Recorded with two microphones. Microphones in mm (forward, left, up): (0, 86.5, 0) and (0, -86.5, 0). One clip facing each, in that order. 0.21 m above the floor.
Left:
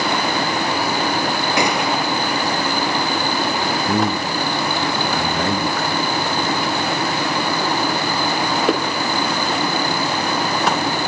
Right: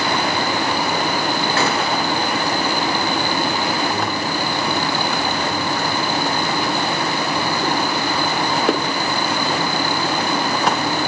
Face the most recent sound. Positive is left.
turn(degrees=55)  # may be behind; listen again after turning